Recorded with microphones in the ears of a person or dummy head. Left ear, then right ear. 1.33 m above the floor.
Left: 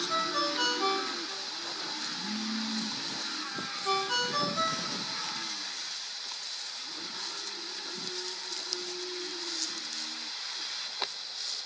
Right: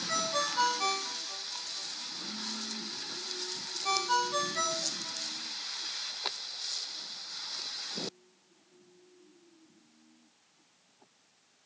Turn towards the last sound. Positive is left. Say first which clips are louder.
# even
turn(degrees=-45)  # may be behind; listen again after turning